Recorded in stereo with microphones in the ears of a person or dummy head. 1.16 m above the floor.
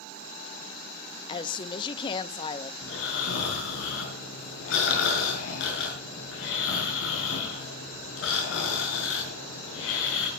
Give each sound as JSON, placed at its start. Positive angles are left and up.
{"t": 1.3, "sound": "a woman speaking", "side_deg": 35, "distance_m": 1.6}
{"t": 2.8, "sound": "snoring", "side_deg": 65, "distance_m": 6.5}